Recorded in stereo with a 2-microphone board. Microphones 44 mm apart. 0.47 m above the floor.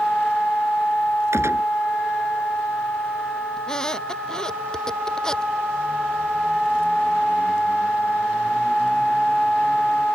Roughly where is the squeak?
Centre.